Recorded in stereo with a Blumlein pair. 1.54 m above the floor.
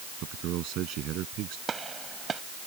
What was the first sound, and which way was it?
A man speaking, 35° right.